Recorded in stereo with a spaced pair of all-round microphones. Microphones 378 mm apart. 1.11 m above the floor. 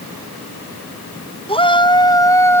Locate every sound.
1.5 s a shout: 15° left (ahead or behind); by 2.6 s 5° left (ahead or behind)